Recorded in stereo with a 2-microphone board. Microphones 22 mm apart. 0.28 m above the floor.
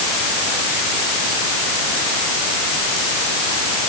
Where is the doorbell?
I don't hear a doorbell.